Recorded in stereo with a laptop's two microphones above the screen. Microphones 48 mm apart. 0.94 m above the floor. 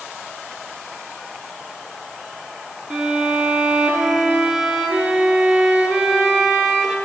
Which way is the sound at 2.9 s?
5° right (ahead or behind).